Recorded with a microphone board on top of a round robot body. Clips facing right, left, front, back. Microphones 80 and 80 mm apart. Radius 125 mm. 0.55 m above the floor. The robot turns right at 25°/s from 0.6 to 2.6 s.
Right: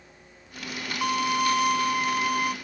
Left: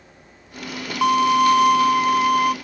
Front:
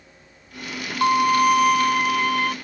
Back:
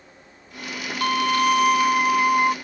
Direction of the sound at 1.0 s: 70° left.